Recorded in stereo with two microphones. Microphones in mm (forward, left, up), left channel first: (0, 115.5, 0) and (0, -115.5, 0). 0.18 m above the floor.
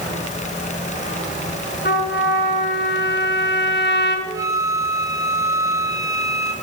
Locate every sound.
1.9 s a trumpet: 50° left (ahead or behind), 1.9 m
4.3 s a flute: 15° right (ahead or behind), 1.2 m